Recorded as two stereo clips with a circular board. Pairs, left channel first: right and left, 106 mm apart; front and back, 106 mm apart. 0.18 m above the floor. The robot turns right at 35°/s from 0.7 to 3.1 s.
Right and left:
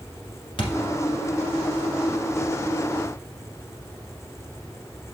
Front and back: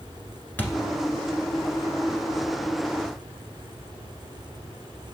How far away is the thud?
About 1.3 m.